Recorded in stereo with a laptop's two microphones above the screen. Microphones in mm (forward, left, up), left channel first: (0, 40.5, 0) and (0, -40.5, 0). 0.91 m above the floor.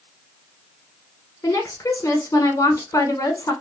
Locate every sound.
1.4 s a woman speaking: 35° left (ahead or behind), 1.0 m